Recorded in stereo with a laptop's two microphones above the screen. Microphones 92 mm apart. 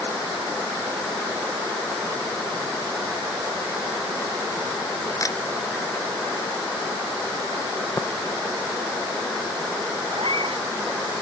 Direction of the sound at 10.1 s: 85° right.